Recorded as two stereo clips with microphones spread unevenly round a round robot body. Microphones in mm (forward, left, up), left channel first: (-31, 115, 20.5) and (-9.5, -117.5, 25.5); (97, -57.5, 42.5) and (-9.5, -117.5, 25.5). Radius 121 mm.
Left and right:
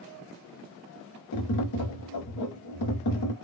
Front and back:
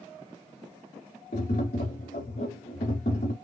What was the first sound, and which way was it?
Tapping, 85° left.